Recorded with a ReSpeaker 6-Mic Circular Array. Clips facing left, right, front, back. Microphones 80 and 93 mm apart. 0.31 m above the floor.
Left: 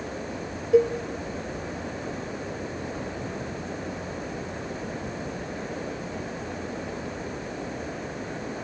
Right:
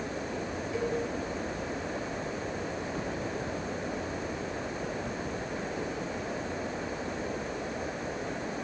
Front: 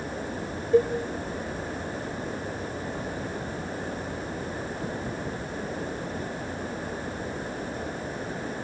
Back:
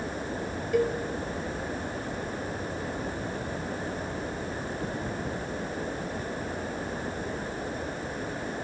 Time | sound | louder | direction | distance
0.7 | a cowbell | left 13 dB, front 5 dB | 65° left | 2 m